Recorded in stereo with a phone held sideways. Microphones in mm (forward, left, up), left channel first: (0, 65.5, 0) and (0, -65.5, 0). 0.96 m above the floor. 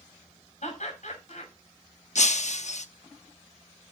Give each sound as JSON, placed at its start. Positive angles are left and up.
{"t": 0.6, "sound": "laughter", "side_deg": 65, "distance_m": 6.0}
{"t": 2.1, "sound": "breaking glass", "side_deg": 60, "distance_m": 0.9}